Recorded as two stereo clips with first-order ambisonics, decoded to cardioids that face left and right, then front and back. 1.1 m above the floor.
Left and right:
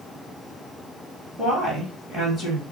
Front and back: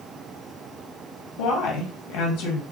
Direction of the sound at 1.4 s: 5° left.